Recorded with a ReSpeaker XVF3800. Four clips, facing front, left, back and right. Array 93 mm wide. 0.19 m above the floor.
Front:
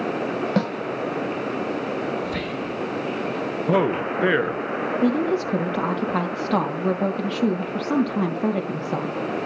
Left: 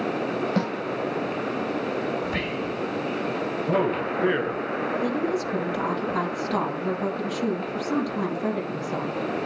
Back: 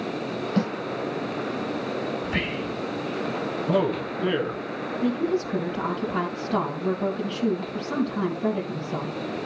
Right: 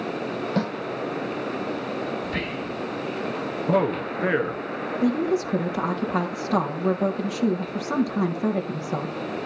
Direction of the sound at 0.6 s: 5° left.